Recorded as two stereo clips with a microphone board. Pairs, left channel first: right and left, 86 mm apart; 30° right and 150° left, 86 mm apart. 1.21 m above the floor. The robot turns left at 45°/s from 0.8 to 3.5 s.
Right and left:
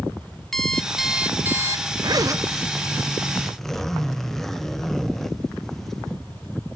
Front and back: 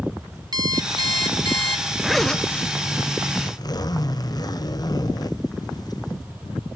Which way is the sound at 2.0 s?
65° left.